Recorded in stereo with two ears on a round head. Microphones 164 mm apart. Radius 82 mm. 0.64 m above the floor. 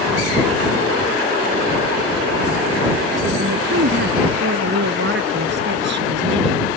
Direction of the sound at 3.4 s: 70° right (ahead or behind).